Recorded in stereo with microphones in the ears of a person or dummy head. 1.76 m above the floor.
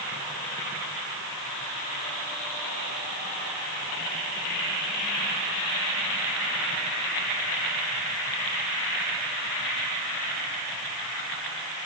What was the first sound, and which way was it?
Only background noise.